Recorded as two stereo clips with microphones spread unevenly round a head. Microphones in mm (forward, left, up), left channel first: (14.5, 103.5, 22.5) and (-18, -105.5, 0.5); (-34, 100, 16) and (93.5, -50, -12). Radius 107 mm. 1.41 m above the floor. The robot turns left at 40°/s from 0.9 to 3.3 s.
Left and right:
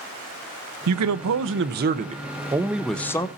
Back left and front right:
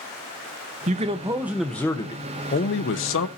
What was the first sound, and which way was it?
A man speaking, 110° right.